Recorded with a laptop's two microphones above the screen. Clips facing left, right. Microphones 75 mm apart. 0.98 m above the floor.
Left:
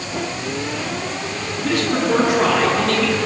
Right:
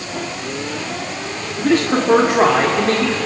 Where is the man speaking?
50° right (ahead or behind), 2.0 m.